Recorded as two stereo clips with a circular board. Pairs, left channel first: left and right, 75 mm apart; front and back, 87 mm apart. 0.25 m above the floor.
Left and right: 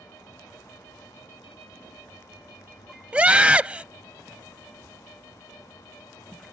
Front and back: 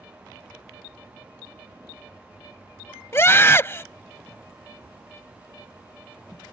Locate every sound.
3.1 s a scream: 30° right